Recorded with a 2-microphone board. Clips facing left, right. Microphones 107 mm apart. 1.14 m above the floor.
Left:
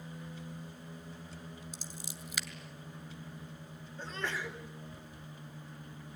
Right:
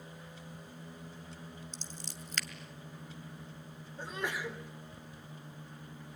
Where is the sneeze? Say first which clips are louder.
Right 1 dB; 10° right (ahead or behind), 3.5 m.